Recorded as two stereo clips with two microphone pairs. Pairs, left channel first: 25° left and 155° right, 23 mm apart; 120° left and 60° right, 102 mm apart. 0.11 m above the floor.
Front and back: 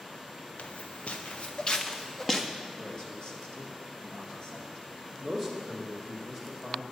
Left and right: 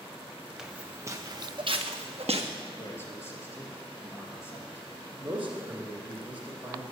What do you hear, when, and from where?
0.6 s footsteps: 30° left, 0.9 m; by 2.5 s 50° right, 1.2 m
2.7 s a man speaking: 65° left, 2.5 m
5.2 s a man speaking: 20° right, 1.8 m